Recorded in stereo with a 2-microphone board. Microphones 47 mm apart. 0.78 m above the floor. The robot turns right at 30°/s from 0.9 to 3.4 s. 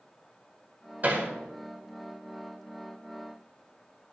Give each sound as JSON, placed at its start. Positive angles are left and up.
{"t": 1.0, "sound": "hammering", "side_deg": -40, "distance_m": 2.0}